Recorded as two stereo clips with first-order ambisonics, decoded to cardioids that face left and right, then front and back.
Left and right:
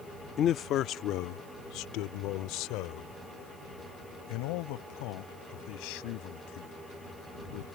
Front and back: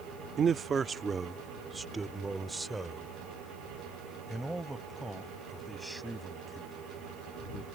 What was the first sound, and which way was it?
A man speaking, 130° left.